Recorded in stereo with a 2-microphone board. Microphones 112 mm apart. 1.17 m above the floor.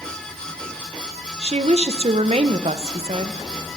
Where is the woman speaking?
65° right (ahead or behind), 0.5 m.